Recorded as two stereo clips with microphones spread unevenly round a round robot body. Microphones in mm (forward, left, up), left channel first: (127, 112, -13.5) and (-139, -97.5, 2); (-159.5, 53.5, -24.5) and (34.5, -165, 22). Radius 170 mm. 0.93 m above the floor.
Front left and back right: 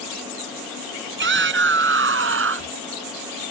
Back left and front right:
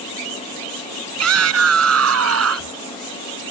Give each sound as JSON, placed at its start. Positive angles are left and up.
{"t": 1.2, "sound": "a shout", "azimuth_deg": -85}